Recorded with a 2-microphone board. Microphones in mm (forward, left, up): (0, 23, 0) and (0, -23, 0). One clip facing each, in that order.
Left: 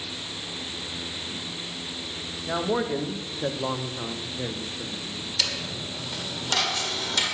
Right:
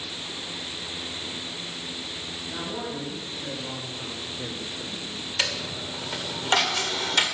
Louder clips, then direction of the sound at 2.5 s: Left 9 dB; 80° left.